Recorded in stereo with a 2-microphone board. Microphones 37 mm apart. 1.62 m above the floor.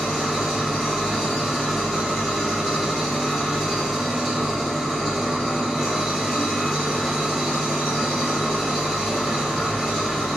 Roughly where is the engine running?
Centre.